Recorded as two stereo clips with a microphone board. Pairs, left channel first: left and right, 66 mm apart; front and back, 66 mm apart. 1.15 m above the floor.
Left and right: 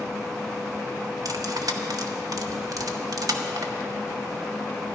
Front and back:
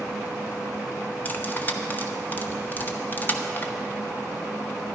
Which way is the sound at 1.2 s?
60° right.